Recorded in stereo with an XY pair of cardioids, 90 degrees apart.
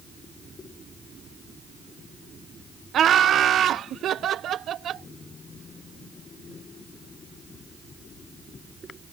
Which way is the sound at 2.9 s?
70° right.